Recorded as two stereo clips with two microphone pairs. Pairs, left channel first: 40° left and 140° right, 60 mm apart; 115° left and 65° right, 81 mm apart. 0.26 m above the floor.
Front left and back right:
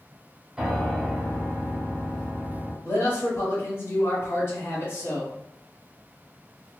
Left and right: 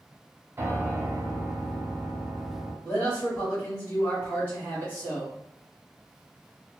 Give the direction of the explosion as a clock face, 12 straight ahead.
I don't hear an explosion.